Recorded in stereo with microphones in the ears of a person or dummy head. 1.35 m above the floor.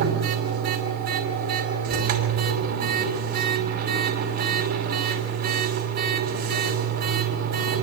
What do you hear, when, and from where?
0.0 s a machine running: 55° right (ahead or behind), 5.5 m